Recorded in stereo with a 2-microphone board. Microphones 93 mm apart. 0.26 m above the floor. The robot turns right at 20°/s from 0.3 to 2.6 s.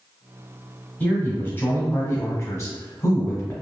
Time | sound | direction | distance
1.0 | a man speaking | 30° left | 1.2 m